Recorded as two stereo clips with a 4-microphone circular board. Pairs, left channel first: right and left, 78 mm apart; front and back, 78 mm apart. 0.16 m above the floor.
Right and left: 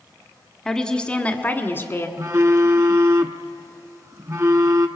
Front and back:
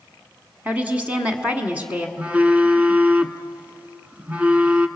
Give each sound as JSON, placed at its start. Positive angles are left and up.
{"t": 0.7, "sound": "a woman speaking", "azimuth_deg": -165, "distance_m": 1.5}
{"t": 2.2, "sound": "a phone buzzing", "azimuth_deg": 115, "distance_m": 1.0}